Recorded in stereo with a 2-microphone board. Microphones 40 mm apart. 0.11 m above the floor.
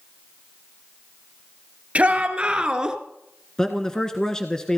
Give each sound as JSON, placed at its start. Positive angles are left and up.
{"t": 1.9, "sound": "a shout", "side_deg": -30, "distance_m": 1.8}
{"t": 3.6, "sound": "a man speaking", "side_deg": 15, "distance_m": 1.2}